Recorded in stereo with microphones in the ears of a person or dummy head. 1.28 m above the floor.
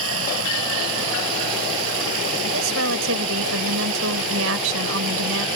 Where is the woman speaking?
75° right (ahead or behind).